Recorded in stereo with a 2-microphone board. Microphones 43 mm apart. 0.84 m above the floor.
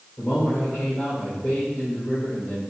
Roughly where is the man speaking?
Left.